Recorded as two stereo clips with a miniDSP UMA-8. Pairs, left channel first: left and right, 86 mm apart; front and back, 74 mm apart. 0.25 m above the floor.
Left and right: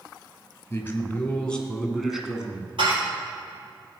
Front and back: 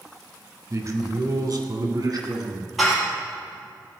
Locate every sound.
0.7 s a man speaking: 150° left, 2 m; by 2.7 s 165° right, 2 m
2.8 s dishes clattering: 90° right, 4.5 m